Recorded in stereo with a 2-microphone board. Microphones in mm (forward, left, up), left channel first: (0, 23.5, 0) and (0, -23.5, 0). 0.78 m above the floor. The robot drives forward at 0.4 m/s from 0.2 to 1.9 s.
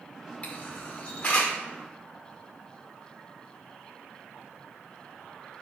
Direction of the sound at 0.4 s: 30° left (ahead or behind).